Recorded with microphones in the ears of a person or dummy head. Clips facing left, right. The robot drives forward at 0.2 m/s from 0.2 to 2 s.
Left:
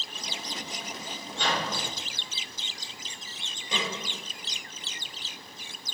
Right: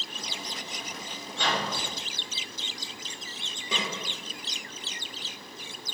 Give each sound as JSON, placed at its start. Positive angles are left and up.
{"t": 1.3, "sound": "a microwave", "side_deg": -65, "distance_m": 1.1}
{"t": 3.7, "sound": "a snare drum", "side_deg": -75, "distance_m": 1.1}